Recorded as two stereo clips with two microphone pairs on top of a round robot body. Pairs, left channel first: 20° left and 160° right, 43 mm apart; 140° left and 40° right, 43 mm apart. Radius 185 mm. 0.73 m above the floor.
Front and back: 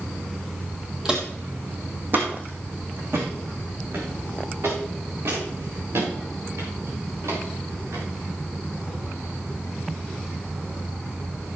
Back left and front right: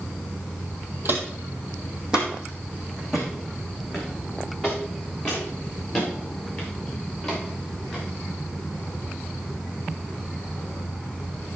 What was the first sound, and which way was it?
Footsteps, 85° right.